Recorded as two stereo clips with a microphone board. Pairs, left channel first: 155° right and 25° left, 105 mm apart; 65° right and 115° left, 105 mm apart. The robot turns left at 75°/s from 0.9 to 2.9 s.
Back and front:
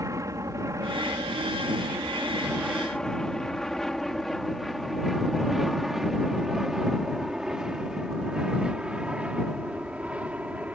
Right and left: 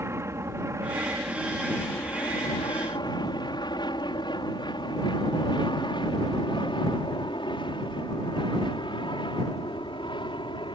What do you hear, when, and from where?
0.0 s an aircraft: 60° left; by 10.8 s 50° right